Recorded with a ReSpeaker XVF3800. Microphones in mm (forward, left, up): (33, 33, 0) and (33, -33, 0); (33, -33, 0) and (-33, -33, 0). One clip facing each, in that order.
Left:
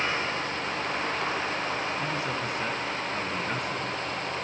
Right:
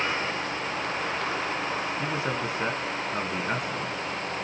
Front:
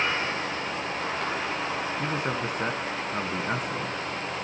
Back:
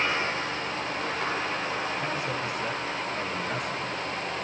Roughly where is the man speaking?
Ahead right.